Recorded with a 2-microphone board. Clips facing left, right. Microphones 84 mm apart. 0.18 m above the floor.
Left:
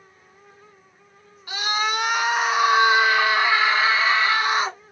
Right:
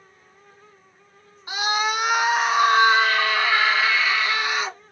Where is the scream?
20° right (ahead or behind), 1.3 m; by 4.8 s 40° left (ahead or behind), 1.7 m.